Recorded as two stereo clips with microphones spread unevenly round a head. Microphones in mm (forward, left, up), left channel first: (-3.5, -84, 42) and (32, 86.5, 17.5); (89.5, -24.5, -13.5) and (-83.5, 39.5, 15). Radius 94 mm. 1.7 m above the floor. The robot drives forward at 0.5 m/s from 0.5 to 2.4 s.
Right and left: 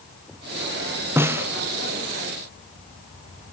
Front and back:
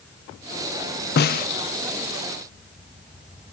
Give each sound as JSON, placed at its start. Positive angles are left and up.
{"t": 1.2, "sound": "a snare drum", "azimuth_deg": 0, "distance_m": 0.8}